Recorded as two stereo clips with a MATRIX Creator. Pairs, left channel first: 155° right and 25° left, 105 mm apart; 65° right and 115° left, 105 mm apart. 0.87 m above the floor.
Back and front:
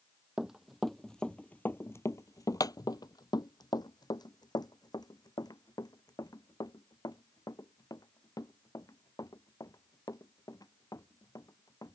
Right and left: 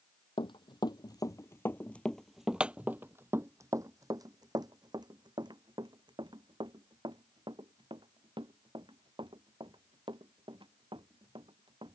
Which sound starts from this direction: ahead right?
Running footsteps, at 0.4 s.